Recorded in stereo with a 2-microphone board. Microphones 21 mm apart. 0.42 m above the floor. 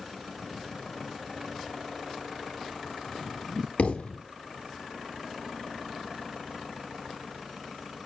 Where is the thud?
75° left (ahead or behind), 2 m.